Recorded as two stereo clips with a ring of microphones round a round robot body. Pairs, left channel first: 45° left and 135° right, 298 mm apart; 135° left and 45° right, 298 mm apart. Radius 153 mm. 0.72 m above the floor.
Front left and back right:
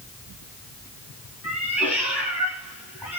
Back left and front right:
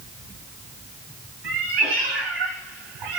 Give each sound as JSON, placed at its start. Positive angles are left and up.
{"t": 1.4, "sound": "a cat meowing", "azimuth_deg": -50, "distance_m": 3.0}